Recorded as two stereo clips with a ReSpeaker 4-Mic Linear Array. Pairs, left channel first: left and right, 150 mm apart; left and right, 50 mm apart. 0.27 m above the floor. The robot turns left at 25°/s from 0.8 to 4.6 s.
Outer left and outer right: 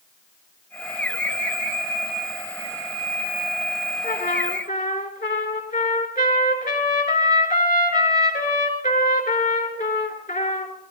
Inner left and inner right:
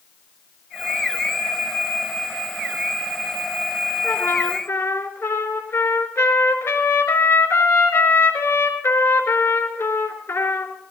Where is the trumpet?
70° left (ahead or behind), 3.5 m.